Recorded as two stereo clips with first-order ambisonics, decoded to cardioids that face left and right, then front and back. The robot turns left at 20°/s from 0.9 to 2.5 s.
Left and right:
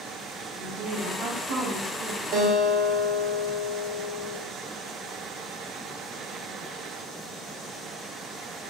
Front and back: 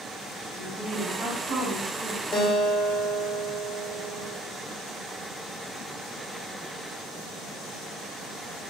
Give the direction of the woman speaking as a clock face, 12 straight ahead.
4 o'clock.